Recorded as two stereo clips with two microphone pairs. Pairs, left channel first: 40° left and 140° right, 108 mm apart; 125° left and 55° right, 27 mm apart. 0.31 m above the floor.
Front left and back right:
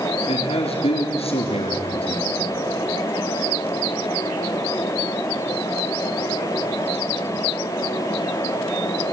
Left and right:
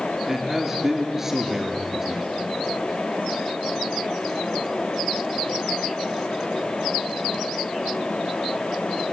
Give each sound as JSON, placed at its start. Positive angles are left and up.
{"t": 0.3, "sound": "a man speaking", "azimuth_deg": 15, "distance_m": 3.5}